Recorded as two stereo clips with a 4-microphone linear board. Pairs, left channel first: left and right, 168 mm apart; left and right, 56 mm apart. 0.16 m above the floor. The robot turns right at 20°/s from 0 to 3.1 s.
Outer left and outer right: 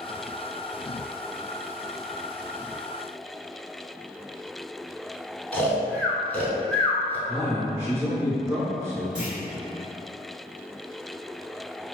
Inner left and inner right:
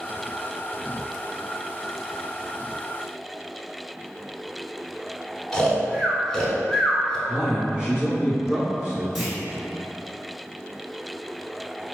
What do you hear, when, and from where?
5.5 s snoring: 10° left (ahead or behind), 0.6 m
7.3 s a man speaking: 15° right (ahead or behind), 1.4 m
9.2 s a clunk: 5° right (ahead or behind), 1.6 m